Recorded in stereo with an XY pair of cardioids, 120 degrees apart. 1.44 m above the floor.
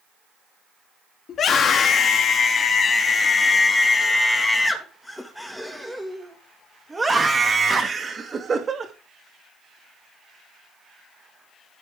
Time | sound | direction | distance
1.3 | a scream | 50° left | 3 m